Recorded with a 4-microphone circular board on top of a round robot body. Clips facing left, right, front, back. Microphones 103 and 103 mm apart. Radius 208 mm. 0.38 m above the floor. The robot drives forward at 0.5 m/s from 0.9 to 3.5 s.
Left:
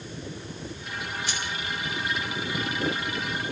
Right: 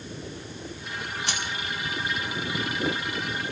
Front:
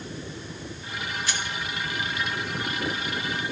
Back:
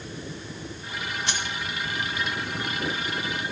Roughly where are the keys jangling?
Behind right.